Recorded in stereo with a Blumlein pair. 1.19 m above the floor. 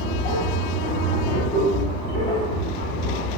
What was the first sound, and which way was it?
A machine running, 50° left.